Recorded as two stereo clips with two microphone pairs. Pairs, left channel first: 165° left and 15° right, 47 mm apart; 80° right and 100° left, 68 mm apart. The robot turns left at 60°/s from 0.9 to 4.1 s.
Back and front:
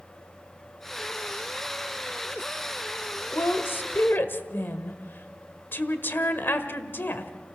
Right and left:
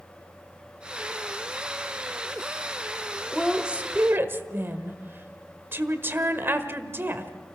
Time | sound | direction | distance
3.3 | a woman speaking | 170° right | 1.3 m